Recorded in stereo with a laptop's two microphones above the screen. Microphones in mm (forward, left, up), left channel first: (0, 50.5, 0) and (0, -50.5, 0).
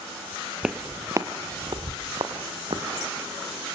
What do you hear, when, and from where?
0.6 s footsteps: 5° right (ahead or behind), 1.2 m; by 2.9 s 55° right (ahead or behind), 4 m